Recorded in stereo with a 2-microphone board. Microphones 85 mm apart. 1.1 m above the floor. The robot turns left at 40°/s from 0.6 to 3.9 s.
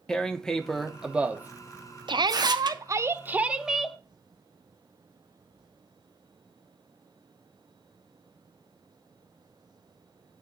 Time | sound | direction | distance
0.1 | tearing paper | 10° left (ahead or behind) | 0.9 m
2.1 | a shout | 110° right | 0.8 m